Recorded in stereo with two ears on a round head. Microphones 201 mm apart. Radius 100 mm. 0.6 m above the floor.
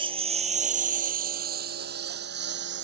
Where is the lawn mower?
25° right (ahead or behind); by 2.9 s 50° right (ahead or behind).